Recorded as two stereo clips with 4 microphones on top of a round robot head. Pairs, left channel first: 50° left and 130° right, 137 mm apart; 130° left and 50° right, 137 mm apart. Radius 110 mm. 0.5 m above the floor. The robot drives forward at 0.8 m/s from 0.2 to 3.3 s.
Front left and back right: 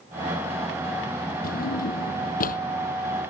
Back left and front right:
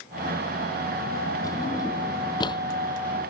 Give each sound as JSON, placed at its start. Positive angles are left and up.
{"t": 1.4, "sound": "a drawer", "azimuth_deg": 65}